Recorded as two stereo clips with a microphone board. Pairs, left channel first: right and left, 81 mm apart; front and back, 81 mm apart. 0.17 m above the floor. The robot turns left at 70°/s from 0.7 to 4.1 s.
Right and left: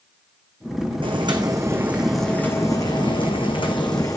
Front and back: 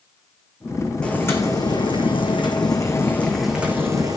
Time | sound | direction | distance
1.0 | boiling | 80° left | 2.5 m